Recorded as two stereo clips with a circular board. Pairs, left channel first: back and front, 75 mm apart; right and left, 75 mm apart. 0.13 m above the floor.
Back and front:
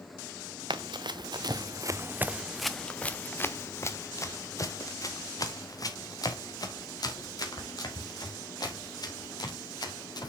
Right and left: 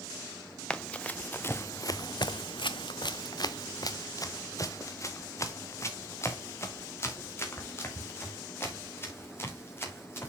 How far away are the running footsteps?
About 1.0 m.